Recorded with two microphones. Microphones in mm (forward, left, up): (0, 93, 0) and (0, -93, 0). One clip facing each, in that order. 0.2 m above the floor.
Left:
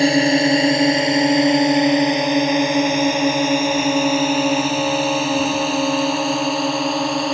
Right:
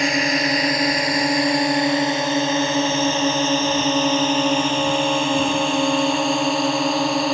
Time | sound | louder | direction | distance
0.0 | a drone | left 7 dB | 30° left (ahead or behind) | ?